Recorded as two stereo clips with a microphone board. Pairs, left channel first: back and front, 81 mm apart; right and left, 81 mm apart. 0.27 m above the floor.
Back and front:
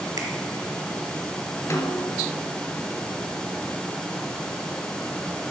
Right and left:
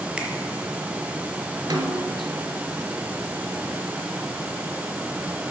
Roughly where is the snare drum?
Behind left.